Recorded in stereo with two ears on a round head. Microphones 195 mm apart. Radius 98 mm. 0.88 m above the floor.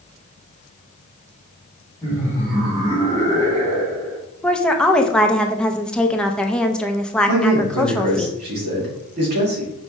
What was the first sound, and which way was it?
Laughter, 15° left (ahead or behind).